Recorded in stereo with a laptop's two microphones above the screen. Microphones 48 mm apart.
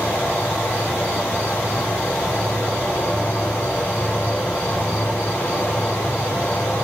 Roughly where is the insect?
Left.